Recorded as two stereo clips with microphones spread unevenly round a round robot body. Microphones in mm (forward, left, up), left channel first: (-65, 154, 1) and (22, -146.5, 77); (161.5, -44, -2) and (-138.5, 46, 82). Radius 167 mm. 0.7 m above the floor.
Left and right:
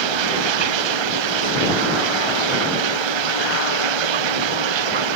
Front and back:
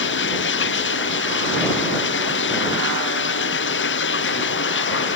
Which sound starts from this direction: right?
Running water, at 0.0 s.